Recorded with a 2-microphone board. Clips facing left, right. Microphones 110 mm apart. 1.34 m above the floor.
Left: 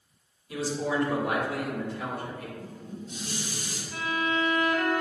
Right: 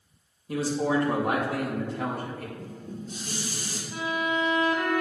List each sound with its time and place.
0.5 s a man speaking: 50° right (ahead or behind), 2.5 m
2.6 s dishes clattering: 40° right (ahead or behind), 2 m
3.9 s a violin: 15° right (ahead or behind), 1.9 m